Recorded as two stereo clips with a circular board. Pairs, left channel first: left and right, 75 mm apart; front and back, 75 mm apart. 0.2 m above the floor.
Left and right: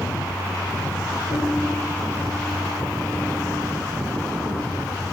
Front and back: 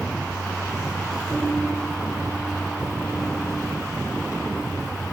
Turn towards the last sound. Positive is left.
turn(degrees=75)